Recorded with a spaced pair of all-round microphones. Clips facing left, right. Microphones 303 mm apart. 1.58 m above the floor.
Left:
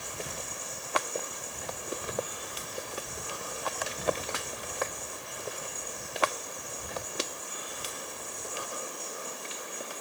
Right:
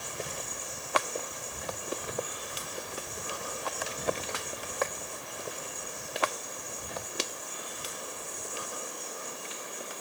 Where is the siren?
I don't hear a siren.